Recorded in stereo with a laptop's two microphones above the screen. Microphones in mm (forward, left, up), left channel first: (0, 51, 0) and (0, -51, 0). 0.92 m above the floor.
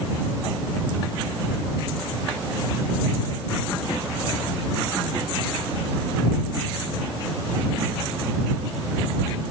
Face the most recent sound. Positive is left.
No sound to turn to.